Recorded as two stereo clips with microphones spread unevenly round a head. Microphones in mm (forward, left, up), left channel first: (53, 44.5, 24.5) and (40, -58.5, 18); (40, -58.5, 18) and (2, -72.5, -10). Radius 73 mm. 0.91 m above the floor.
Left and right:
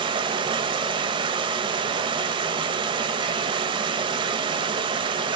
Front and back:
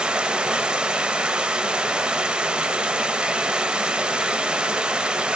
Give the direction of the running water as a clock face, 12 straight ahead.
2 o'clock.